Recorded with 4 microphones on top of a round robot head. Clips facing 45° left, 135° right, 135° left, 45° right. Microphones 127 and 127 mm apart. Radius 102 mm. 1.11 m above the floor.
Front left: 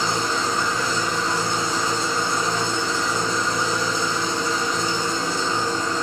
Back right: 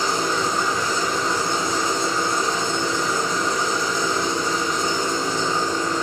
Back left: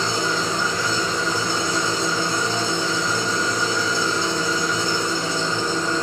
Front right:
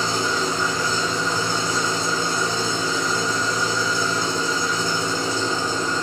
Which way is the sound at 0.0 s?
135° left.